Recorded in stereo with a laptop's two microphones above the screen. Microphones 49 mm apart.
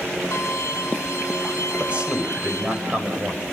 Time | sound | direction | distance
0.3 | a violin | 70° left (ahead or behind) | 2.5 m
1.8 | a man speaking | 25° right (ahead or behind) | 5 m